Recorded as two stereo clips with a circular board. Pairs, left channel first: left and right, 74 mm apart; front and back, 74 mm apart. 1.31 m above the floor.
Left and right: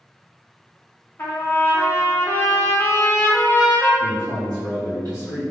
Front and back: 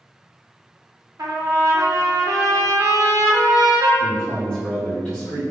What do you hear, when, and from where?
1.2 s a trumpet: 150° left, 0.5 m
4.0 s a man speaking: 70° right, 0.9 m